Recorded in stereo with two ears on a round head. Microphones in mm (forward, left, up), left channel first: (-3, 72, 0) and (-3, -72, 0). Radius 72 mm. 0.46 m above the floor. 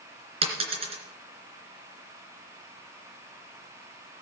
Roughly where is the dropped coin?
Right.